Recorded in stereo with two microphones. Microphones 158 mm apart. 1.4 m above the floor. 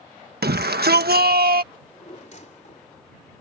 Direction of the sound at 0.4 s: 85° right.